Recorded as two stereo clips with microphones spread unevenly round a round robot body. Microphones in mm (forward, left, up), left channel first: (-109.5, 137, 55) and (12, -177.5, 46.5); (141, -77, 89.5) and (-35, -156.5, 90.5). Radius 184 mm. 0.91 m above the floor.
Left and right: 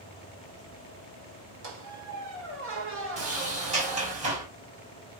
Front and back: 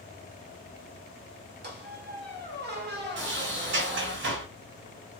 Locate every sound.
1.6 s a squeak: 125° right, 1.6 m
3.2 s a sliding door: 140° right, 1.9 m